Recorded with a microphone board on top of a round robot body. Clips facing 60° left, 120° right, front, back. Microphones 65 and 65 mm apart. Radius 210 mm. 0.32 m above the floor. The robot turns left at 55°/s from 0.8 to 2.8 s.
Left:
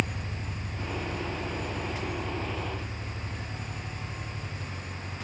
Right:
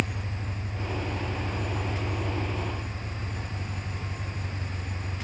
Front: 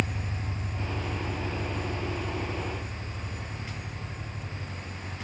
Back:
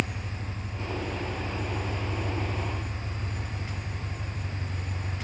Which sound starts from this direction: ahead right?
An engine running, at 0.0 s.